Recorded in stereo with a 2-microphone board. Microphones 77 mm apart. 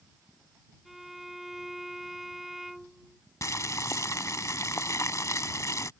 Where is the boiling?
45° left (ahead or behind).